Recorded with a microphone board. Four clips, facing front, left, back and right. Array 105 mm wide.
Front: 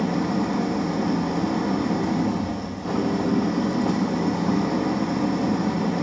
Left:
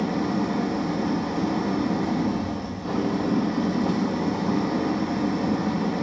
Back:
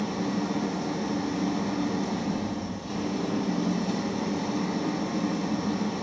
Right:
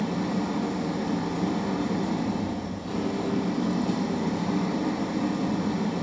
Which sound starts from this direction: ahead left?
An engine running, at 0.0 s.